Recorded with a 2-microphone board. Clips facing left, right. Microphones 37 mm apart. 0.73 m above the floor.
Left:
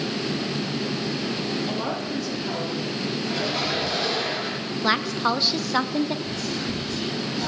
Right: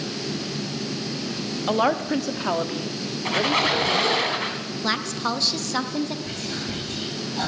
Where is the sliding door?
I don't hear a sliding door.